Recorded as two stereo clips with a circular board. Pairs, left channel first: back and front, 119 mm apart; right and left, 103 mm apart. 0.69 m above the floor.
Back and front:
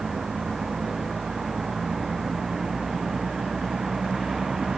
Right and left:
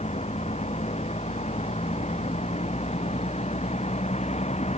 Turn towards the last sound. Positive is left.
turn(degrees=-85)